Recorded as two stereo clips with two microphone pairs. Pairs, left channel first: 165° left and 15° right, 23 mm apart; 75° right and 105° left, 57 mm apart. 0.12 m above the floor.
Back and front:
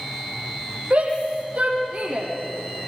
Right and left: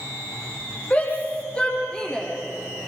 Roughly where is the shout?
Ahead.